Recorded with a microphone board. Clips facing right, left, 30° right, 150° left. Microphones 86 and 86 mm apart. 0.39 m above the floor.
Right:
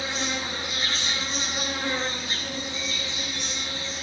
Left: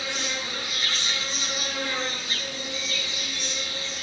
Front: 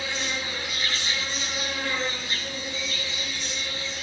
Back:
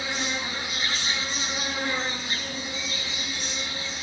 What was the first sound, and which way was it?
An insect, 140° right.